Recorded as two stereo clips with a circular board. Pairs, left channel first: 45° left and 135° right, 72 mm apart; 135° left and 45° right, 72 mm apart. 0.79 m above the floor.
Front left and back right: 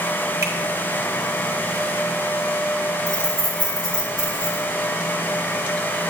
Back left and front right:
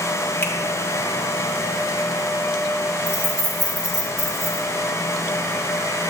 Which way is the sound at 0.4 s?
170° right.